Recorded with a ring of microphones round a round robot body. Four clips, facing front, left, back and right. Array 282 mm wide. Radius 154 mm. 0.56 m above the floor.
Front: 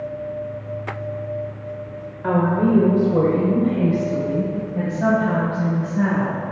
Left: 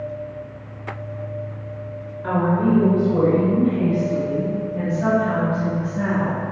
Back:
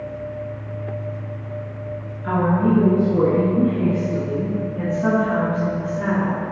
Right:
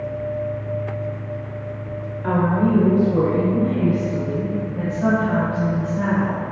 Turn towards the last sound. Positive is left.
turn(degrees=5)